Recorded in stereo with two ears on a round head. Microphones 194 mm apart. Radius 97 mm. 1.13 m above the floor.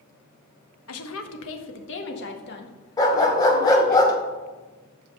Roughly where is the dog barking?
Centre.